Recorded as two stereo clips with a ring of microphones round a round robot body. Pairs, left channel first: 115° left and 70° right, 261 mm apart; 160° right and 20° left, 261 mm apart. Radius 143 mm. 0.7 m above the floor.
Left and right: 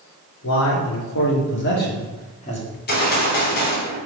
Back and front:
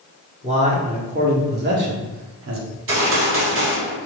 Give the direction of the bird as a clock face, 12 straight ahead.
I don't hear a bird.